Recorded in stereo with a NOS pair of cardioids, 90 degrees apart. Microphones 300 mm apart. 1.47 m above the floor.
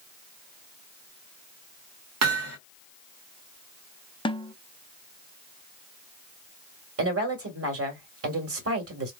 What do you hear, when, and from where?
2.2 s hammering: 60° right, 1.2 m
4.2 s a snare drum: 15° left, 0.5 m
7.0 s a woman speaking: 50° right, 1.8 m